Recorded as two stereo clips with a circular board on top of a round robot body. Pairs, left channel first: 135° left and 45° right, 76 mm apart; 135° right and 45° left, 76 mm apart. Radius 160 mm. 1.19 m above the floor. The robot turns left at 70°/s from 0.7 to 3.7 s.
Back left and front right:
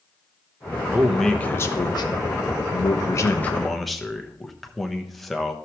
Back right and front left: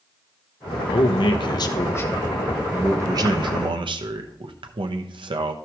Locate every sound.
0.9 s a man speaking: 115° right, 1.0 m; by 5.5 s 45° left, 1.0 m